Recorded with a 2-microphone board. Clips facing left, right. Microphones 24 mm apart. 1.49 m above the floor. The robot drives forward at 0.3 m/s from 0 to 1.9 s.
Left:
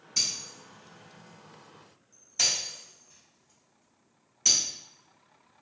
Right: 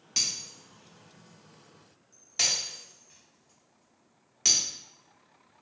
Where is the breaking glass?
50° right (ahead or behind), 1.4 m; by 4.6 s 45° right (ahead or behind), 1.5 m.